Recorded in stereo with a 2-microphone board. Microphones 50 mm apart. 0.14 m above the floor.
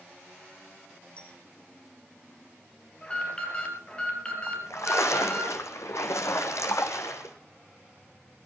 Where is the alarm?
20° left (ahead or behind), 4.5 m.